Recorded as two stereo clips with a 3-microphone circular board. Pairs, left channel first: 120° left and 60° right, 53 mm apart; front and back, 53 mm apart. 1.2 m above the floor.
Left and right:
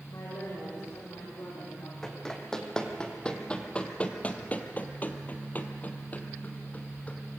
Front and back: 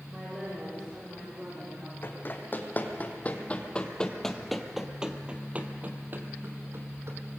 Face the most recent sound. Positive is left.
turn(degrees=175)